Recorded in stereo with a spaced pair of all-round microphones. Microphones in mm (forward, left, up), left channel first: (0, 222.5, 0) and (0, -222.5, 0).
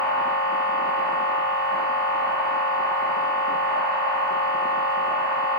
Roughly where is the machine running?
Left.